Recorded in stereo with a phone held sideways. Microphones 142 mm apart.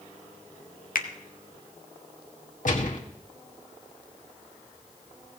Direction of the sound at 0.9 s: 80° left.